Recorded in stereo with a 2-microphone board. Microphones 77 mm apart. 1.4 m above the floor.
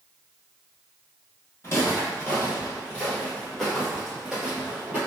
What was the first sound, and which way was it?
Footsteps, 35° left (ahead or behind).